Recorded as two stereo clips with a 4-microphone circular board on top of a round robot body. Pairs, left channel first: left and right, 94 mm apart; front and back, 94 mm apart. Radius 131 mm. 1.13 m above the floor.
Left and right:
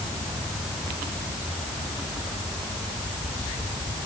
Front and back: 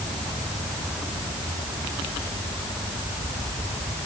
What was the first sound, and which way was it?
Only background noise.